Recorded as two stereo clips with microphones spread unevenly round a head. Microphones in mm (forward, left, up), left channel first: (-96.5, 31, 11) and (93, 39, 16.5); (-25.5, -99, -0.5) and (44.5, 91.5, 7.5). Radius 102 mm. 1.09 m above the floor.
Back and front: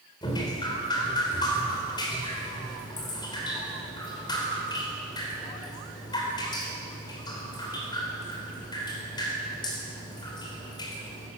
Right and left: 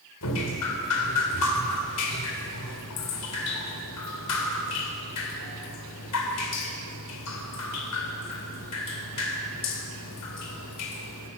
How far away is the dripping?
About 3.5 m.